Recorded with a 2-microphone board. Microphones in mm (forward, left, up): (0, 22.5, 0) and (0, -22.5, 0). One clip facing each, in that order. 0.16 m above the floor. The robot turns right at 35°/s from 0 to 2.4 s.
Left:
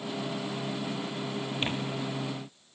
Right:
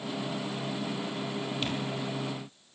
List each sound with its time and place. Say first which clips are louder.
1.6 s tearing paper: left 3 dB; 30° left (ahead or behind), 3 m; by 1.7 s 35° left (ahead or behind), 3 m